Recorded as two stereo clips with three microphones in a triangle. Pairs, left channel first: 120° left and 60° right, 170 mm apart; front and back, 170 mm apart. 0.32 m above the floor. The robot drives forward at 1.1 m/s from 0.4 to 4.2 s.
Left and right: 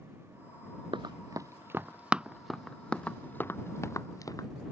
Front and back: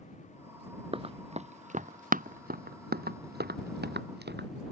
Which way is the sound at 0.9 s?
120° right.